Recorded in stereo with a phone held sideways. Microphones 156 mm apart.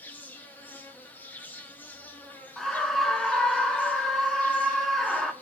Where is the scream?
Centre (ahead or behind), 1.7 m.